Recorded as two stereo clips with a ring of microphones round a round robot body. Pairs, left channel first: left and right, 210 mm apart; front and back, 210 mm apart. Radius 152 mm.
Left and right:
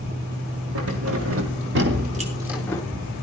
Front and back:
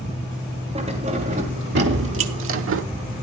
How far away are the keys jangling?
About 1.6 m.